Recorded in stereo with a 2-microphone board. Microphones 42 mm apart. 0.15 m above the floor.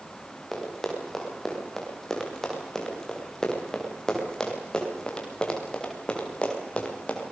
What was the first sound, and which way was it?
Running footsteps, 5° left (ahead or behind).